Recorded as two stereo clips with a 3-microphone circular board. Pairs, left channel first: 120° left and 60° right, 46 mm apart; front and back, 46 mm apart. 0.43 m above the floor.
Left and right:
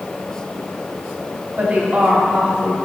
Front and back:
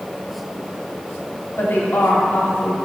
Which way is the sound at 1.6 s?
5° right.